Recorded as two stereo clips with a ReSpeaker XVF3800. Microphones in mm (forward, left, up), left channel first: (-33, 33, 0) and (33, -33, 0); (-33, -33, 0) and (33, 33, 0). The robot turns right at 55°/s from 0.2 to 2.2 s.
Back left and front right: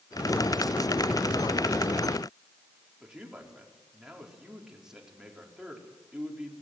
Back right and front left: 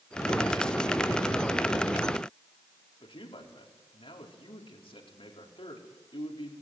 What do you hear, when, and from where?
3.0 s a man speaking: 125° right, 4.5 m